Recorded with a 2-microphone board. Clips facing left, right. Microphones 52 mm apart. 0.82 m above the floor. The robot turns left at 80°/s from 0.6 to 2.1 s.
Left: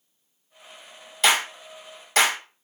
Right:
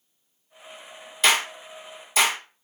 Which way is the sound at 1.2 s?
Centre (ahead or behind).